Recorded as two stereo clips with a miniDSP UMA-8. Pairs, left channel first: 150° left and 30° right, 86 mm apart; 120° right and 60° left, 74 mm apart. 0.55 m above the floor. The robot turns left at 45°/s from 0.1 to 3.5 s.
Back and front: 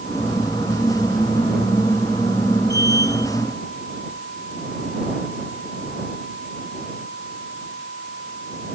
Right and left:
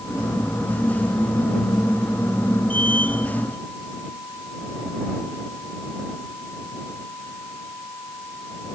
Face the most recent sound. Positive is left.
No sound to turn to.